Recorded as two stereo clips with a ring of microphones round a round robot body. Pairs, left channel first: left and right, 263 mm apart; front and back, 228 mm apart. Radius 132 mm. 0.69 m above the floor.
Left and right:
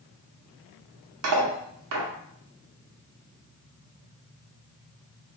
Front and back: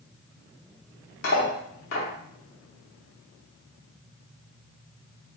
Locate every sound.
1.2 s cutlery clinking: 55° right, 0.7 m